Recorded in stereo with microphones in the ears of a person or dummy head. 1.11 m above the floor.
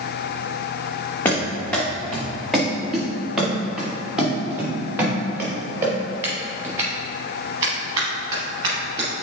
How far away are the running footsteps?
About 3.5 m.